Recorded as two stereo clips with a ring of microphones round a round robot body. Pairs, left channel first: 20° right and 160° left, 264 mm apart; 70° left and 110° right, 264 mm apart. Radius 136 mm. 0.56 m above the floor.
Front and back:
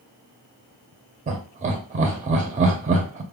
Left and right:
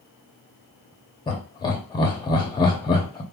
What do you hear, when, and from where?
1.3 s laughter: 125° left, 0.6 m